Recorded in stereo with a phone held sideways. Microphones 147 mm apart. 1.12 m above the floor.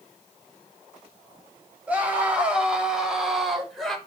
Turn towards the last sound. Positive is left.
turn(degrees=0)  # may be behind; listen again after turning